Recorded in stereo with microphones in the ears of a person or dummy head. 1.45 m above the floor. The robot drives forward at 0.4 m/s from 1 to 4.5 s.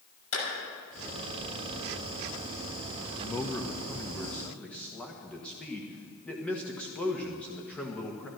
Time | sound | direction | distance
0.3 | a clap | 85° left | 6 m
3.2 | a man speaking | 15° left (ahead or behind) | 0.8 m